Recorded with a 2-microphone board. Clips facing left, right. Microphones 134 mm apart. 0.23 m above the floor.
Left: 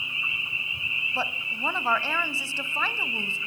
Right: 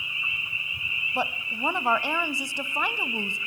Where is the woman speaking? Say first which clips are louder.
Right 3 dB; 15° right (ahead or behind), 1.0 m.